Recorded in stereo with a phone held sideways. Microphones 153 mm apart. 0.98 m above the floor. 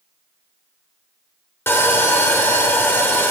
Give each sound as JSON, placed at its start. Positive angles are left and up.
{"t": 1.7, "sound": "sawing", "side_deg": 15, "distance_m": 1.1}